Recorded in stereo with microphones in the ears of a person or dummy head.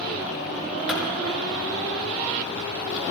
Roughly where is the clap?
Centre.